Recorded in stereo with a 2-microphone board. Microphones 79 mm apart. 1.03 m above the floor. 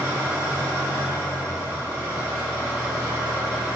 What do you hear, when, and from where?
0.0 s an engine running: 30° right (ahead or behind), 1.0 m